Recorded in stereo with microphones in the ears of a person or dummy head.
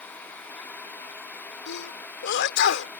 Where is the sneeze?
70° left (ahead or behind).